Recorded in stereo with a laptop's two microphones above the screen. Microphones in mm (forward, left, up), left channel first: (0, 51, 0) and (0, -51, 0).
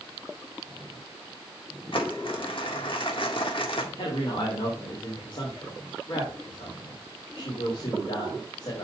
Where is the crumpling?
60° left (ahead or behind), 1.8 m.